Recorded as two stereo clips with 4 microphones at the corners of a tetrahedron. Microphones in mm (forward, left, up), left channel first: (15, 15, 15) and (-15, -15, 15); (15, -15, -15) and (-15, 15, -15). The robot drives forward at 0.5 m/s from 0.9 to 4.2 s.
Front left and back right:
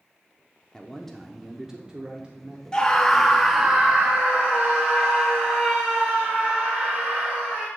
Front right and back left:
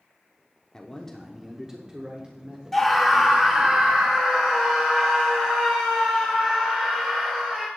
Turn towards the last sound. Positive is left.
turn(degrees=170)